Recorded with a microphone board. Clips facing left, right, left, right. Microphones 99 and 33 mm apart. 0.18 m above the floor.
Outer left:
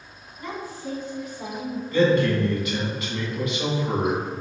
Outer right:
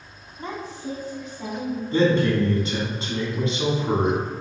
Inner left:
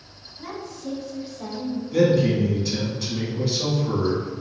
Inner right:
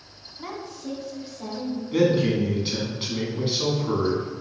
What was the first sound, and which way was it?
A woman speaking, 35° right (ahead or behind).